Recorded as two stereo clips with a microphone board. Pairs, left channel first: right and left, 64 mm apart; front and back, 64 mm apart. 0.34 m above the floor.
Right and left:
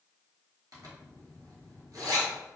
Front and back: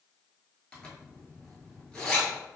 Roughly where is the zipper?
Left.